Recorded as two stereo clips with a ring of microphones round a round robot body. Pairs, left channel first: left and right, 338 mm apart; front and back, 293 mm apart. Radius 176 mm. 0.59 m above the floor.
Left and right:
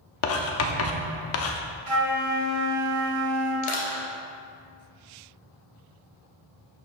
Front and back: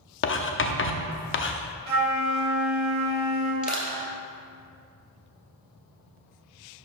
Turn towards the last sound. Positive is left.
turn(degrees=65)